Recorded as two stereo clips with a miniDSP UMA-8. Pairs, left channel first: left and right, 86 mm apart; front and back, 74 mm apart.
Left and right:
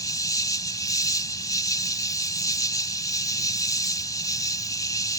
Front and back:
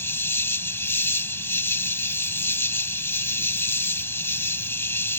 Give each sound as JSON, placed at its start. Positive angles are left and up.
{"t": 0.0, "sound": "an insect", "azimuth_deg": 55}